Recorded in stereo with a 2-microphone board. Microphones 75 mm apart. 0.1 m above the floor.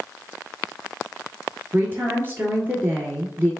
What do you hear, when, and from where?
1.7 s a woman speaking: 30° right (ahead or behind), 1.3 m